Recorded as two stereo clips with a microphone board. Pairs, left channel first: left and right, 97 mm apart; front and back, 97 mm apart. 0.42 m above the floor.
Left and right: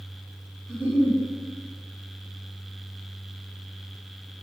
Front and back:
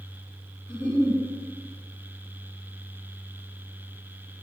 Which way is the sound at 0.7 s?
20° right.